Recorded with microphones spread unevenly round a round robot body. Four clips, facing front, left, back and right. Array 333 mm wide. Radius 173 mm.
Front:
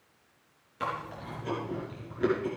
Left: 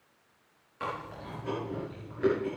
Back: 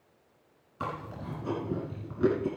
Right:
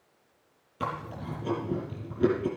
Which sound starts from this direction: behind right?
Chewing, at 0.8 s.